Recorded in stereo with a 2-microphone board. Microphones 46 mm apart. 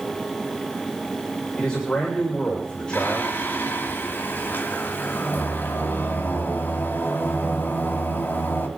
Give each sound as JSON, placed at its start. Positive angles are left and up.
{"t": 1.6, "sound": "a man speaking", "side_deg": 20, "distance_m": 3.5}
{"t": 2.9, "sound": "singing", "side_deg": 40, "distance_m": 2.5}